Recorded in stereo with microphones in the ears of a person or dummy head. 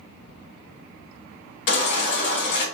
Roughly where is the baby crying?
Left.